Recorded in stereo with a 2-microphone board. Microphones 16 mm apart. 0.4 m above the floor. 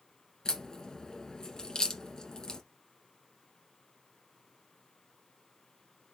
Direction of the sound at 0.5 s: 45° left (ahead or behind).